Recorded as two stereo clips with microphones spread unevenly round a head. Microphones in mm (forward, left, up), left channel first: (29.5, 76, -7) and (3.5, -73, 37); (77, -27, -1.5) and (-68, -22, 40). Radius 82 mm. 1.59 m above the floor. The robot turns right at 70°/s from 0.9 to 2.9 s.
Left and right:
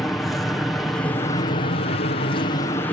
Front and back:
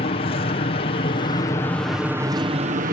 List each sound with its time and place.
0.0 s an aircraft: 5° left; by 2.9 s 145° left